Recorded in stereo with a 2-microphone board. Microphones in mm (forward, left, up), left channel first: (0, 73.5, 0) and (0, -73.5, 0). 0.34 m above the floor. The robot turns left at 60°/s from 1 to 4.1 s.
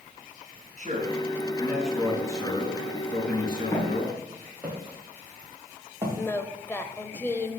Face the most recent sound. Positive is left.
turn(degrees=15)  # may be behind; listen again after turning